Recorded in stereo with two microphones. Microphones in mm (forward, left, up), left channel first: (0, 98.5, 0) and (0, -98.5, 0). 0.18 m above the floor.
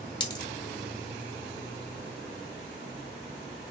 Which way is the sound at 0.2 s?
20° left (ahead or behind).